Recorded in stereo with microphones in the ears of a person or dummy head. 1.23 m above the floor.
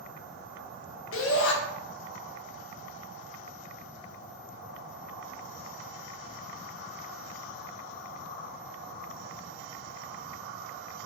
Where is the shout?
65° left (ahead or behind), 1.1 m.